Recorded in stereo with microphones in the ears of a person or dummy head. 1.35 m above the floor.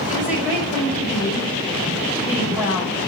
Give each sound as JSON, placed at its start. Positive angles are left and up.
{"t": 0.1, "sound": "a woman speaking", "side_deg": -10, "distance_m": 5.5}